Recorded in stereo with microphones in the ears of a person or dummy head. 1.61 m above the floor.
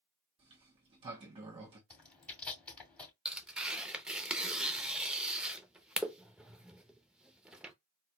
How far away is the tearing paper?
About 0.6 m.